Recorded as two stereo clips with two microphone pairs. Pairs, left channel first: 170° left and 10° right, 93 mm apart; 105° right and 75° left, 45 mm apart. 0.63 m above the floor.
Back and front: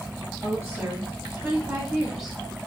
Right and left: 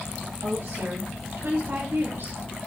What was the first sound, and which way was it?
A woman speaking, 65° left.